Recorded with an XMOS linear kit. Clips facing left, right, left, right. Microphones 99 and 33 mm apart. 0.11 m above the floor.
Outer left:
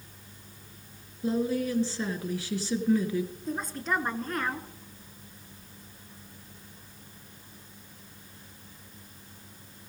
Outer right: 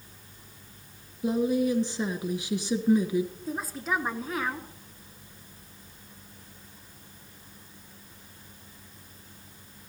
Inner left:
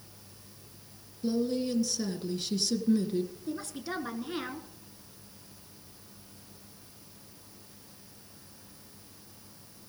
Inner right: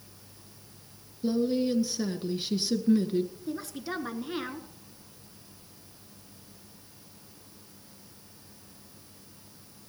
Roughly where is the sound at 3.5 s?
Centre.